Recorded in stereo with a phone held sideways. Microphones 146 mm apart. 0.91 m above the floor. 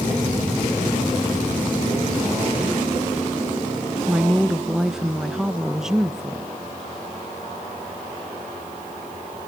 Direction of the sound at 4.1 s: 5° right (ahead or behind).